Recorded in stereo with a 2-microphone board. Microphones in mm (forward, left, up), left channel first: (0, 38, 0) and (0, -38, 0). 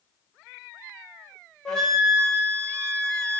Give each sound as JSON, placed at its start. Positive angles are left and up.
{"t": 1.6, "sound": "a flute", "side_deg": 10, "distance_m": 0.6}